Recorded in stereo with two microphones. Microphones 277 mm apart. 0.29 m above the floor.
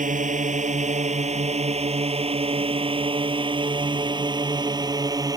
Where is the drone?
25° right (ahead or behind); by 5.4 s 15° right (ahead or behind).